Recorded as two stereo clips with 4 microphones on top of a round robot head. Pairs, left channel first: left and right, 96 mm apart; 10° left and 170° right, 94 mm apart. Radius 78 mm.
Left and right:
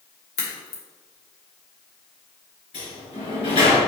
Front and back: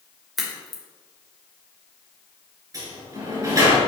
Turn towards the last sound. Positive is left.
turn(degrees=135)